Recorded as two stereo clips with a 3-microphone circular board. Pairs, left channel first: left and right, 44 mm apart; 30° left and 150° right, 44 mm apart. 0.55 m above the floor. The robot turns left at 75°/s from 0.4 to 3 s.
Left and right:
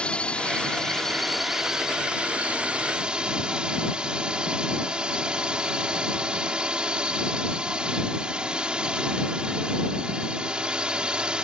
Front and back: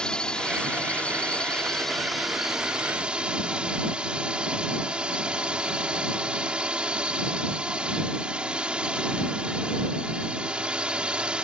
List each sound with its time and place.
0.0 s a drone: 70° left; by 11.4 s 125° right